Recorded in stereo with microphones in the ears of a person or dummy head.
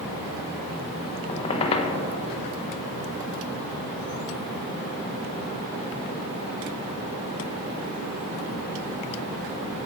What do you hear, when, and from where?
1.3 s a squeak: 30° left (ahead or behind), 0.7 m